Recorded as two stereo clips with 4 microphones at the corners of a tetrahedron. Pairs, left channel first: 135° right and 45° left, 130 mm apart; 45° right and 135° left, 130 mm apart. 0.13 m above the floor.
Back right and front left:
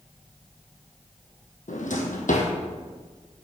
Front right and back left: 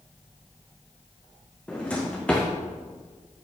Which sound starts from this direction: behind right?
A drawer, at 1.7 s.